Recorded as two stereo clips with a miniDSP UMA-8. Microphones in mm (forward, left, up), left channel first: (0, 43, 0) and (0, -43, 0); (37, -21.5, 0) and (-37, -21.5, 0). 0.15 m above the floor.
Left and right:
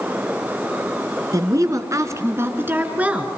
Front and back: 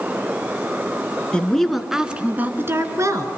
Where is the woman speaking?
70° right, 2.5 m; by 3.3 s 165° right, 2.5 m.